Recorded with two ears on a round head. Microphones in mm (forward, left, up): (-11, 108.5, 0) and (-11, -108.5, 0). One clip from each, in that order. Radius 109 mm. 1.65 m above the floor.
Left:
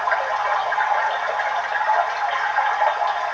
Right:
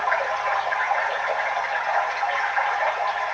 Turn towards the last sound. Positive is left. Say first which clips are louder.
# left 2 dB
turn(degrees=15)  # may be behind; listen again after turning